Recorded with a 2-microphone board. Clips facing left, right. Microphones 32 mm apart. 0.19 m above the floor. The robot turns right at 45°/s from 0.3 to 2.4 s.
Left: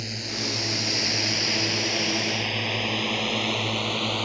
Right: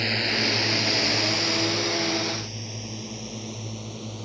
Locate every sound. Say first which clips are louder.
0.0 s a drone: right 7 dB; 50° right (ahead or behind); by 4.2 s 75° left (ahead or behind)